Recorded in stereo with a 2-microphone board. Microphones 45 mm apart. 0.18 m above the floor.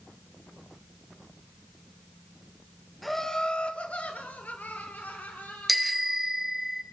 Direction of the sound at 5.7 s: Centre (ahead or behind).